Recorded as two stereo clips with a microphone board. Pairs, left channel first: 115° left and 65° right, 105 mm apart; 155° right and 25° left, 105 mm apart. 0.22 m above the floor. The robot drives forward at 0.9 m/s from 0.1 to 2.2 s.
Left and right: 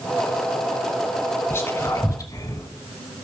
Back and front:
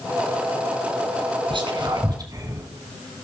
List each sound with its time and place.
1.5 s whispering: 45° left, 2 m; by 2.7 s 65° left, 1.8 m